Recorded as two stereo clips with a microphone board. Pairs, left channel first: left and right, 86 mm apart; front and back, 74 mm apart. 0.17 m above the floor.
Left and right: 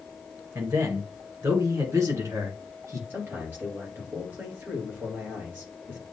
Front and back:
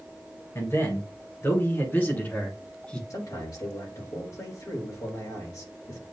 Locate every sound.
0.6 s a man speaking: 40° right, 2.5 m; by 3.0 s 70° right, 1.6 m
3.1 s a man speaking: 25° right, 3 m